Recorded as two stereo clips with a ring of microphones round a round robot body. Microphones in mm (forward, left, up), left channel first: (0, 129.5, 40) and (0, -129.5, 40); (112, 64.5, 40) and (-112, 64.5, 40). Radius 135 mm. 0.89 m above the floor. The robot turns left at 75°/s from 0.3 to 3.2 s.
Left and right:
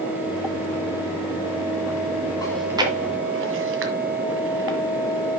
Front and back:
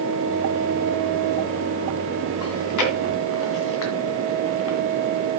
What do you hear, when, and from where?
2.4 s chewing: 15° left, 1.8 m; by 4.8 s 45° right, 1.8 m